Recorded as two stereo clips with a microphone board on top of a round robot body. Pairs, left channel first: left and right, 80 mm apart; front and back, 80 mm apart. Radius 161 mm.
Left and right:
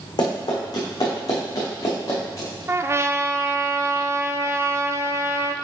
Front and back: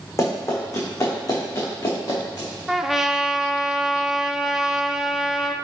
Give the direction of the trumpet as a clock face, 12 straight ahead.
3 o'clock.